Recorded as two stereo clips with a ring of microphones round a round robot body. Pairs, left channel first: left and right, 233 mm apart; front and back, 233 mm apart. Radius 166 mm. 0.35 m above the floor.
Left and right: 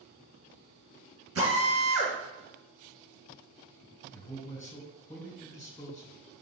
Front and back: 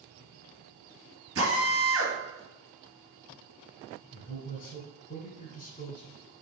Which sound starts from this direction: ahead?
A man speaking, at 4.1 s.